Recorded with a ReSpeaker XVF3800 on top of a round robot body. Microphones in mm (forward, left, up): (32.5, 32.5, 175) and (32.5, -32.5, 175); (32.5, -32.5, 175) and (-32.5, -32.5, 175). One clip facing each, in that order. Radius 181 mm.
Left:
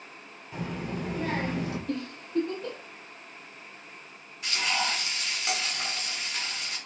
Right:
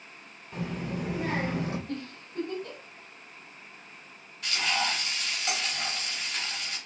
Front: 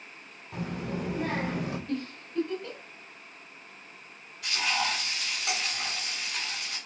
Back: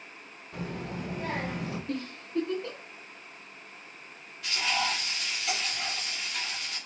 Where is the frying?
10° left, 2 m.